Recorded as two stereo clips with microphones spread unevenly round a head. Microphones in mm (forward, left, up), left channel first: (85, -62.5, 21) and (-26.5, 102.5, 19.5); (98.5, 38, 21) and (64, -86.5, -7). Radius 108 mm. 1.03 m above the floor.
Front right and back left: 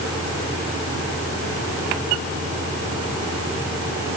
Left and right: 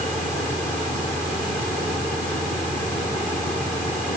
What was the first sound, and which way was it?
Only background noise.